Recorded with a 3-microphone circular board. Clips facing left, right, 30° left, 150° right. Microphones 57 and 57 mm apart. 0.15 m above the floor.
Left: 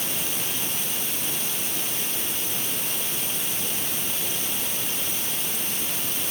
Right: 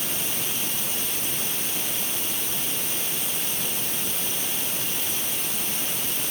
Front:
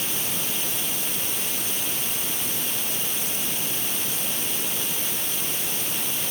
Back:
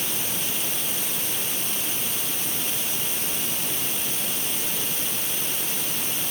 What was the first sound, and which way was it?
Only background noise.